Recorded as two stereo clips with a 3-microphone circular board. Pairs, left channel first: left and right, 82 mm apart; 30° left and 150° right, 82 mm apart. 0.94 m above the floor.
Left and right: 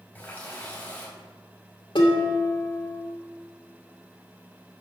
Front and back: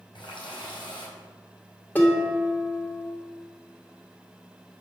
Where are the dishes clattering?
100° left, 1.6 m.